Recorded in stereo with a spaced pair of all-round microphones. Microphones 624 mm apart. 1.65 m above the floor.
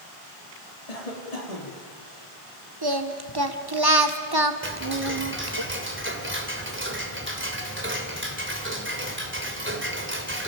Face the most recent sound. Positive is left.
turn(degrees=-20)  # may be behind; listen again after turning